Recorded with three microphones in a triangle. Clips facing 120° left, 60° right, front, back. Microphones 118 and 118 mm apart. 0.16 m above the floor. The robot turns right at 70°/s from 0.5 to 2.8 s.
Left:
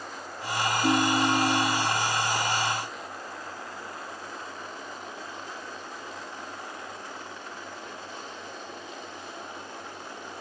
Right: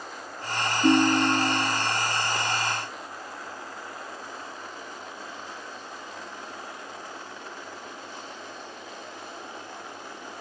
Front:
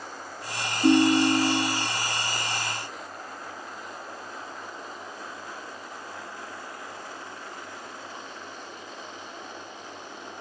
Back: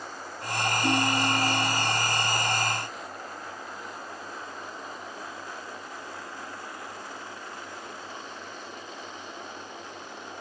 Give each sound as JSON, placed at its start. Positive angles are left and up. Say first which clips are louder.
{"t": 0.8, "sound": "a ringtone", "louder": "right 5 dB, front 10 dB", "azimuth_deg": -15, "distance_m": 0.5}